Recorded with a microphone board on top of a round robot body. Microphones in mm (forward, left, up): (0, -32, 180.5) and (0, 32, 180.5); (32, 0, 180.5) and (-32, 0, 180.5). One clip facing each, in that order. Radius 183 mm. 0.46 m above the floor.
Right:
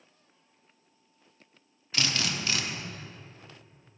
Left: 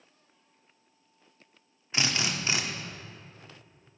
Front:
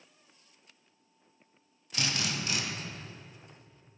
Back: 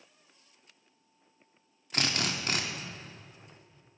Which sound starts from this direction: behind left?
A drill, at 1.9 s.